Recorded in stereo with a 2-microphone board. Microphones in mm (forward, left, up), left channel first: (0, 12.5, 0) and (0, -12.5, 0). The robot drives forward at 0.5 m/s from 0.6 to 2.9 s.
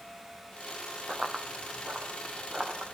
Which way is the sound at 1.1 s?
40° right (ahead or behind).